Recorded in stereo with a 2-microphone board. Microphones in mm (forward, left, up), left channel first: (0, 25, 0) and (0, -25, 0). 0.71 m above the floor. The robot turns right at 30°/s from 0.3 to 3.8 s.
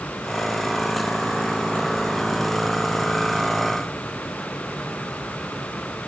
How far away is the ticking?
No ticking in this recording.